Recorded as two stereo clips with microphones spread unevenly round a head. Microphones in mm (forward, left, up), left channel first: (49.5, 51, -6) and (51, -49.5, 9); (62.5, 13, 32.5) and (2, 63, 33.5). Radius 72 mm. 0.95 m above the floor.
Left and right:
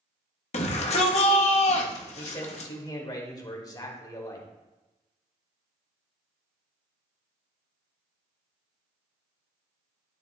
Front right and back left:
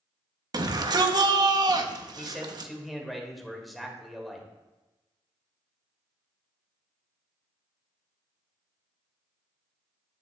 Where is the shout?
105° left, 1.1 m.